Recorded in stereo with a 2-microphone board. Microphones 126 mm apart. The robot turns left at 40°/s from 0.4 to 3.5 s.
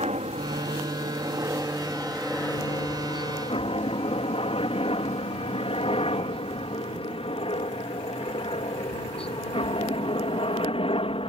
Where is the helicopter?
60° right (ahead or behind); by 11.3 s 50° left (ahead or behind).